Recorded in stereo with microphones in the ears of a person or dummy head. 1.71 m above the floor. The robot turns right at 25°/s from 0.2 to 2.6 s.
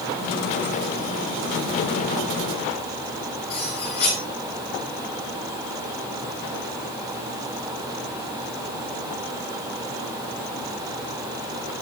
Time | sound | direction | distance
3.5 | cutlery clinking | 50° left (ahead or behind) | 6.5 m